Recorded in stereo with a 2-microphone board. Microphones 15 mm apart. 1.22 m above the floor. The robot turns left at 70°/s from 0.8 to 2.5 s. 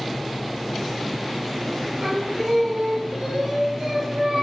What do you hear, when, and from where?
2.0 s singing: 70° right, 8 m; by 4.4 s 105° right, 8 m